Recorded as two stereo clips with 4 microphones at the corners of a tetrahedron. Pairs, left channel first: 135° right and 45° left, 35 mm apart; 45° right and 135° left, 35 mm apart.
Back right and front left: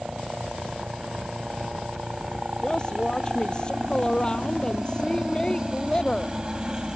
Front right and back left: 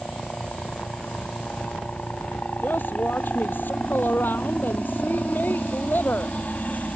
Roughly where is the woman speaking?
Right.